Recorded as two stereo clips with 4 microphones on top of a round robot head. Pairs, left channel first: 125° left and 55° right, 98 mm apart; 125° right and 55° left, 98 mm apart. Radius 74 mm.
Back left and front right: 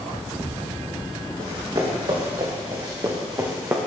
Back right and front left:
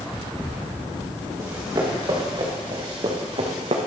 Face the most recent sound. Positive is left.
turn(degrees=15)